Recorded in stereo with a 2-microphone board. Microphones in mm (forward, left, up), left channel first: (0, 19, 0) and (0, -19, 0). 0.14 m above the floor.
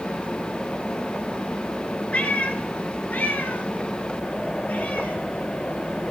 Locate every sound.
2.1 s a cat meowing: 45° left (ahead or behind), 1.1 m